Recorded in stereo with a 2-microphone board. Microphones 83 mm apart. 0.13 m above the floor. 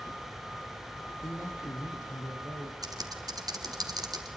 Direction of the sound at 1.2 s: 40° left (ahead or behind).